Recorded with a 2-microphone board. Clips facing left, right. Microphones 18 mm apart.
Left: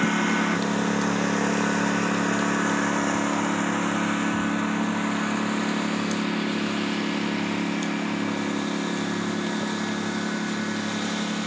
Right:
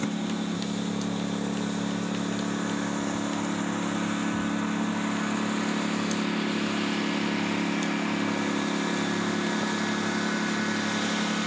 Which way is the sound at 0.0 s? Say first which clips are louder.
Left 7 dB; 80° left.